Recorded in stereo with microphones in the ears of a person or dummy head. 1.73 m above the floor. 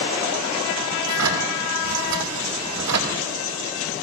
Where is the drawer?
70° right (ahead or behind), 4 m.